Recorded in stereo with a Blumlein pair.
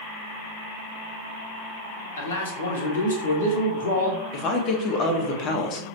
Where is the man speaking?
65° left, 1.6 m.